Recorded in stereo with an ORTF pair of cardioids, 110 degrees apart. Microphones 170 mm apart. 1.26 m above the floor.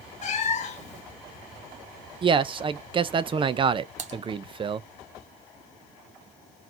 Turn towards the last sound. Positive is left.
turn(degrees=-45)